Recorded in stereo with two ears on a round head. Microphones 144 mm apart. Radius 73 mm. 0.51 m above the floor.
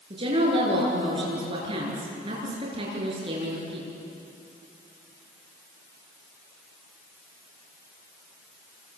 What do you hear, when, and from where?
0.1 s a woman speaking: 35° right (ahead or behind), 8.5 m